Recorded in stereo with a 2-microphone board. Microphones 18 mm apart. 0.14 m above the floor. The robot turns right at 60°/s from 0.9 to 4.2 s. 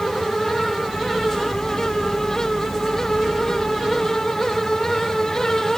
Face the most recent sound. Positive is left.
No sound to turn to.